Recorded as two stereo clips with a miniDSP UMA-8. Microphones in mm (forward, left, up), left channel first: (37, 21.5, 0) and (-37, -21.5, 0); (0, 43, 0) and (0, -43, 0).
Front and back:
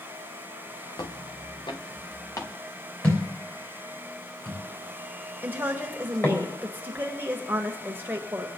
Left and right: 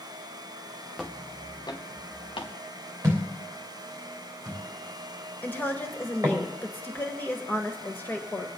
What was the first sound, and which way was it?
Footsteps, 5° right.